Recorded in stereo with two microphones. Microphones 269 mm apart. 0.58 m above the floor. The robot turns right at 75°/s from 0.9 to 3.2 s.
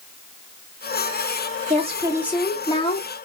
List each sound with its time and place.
1.7 s a woman speaking: 50° right, 1.0 m; by 3.1 s 50° left, 1.0 m